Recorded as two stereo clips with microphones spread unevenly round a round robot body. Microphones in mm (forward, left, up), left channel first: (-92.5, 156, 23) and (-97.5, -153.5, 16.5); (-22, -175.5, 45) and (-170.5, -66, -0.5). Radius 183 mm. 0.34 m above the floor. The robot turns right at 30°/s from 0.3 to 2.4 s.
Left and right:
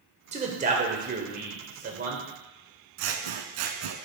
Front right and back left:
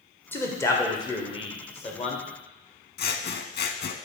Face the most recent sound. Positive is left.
turn(degrees=-70)